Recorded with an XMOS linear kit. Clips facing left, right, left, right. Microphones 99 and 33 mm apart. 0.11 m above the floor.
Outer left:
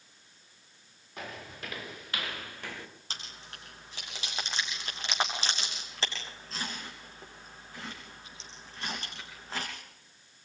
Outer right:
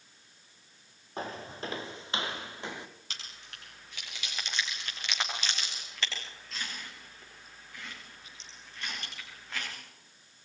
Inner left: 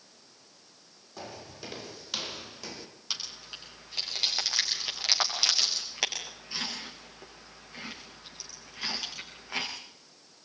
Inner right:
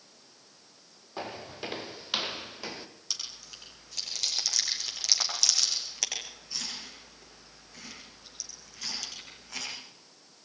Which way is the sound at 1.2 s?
30° right (ahead or behind).